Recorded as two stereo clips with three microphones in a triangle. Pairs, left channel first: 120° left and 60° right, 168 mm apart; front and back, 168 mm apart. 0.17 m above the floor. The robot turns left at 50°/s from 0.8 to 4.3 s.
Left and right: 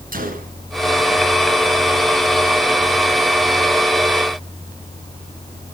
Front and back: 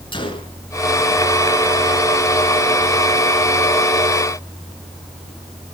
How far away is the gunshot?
About 1.9 m.